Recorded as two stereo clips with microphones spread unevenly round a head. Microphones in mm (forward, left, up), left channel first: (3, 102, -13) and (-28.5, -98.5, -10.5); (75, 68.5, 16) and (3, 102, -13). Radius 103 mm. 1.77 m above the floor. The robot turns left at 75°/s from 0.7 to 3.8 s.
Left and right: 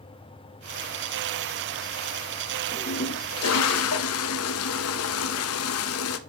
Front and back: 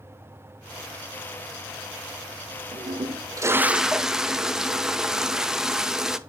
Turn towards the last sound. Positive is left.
turn(degrees=65)